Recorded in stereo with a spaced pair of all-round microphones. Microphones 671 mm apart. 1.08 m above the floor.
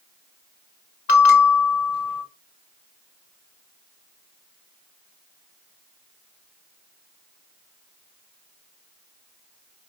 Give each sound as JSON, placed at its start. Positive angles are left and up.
{"t": 1.1, "sound": "a bell", "side_deg": 80, "distance_m": 2.0}